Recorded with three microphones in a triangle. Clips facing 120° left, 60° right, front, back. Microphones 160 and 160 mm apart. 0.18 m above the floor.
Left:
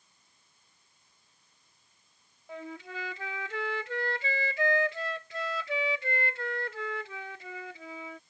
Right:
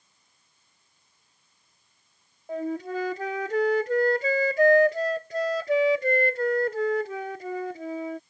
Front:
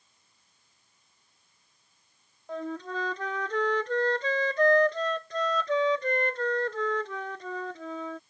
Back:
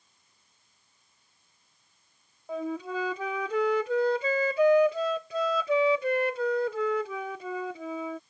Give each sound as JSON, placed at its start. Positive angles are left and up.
{"t": 2.5, "sound": "a flute", "azimuth_deg": -100}